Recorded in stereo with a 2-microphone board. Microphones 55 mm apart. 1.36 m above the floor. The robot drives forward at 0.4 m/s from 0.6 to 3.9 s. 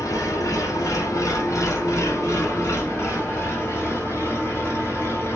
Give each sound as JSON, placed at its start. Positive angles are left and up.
{"t": 0.0, "sound": "an engine running", "side_deg": 85, "distance_m": 1.4}